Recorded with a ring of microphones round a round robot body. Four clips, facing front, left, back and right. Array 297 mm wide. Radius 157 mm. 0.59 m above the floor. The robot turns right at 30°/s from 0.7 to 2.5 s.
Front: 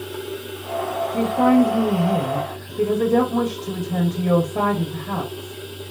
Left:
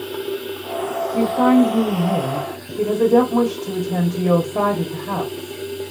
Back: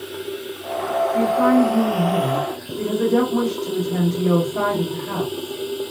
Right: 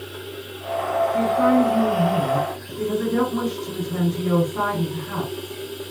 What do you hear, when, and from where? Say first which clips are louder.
0.0 s running water: left 9 dB, back 1 dB; 95° left, 0.9 m; by 5.9 s 150° left, 0.9 m
1.1 s a woman speaking: left 5 dB, front 1 dB; 50° left, 1.8 m; by 5.6 s 90° left, 1.8 m